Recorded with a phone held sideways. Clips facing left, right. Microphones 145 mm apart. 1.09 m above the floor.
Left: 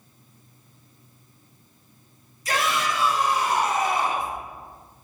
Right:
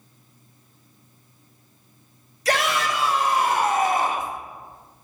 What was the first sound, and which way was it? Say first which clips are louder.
A shout: right 3 dB; 70° right (ahead or behind).